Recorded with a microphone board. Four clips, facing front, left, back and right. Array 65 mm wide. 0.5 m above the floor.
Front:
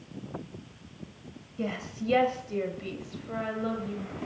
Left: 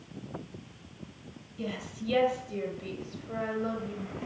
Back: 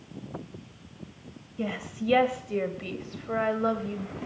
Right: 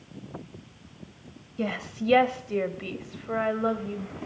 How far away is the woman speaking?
About 2 m.